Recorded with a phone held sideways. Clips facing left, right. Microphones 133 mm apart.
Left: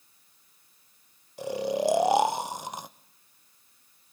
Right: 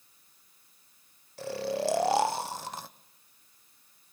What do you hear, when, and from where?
1.4 s snoring: 20° left (ahead or behind), 0.6 m